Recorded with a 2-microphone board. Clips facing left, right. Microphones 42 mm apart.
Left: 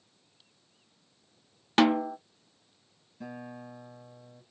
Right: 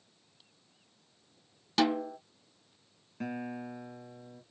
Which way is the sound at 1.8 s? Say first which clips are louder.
Left 5 dB; 45° left (ahead or behind).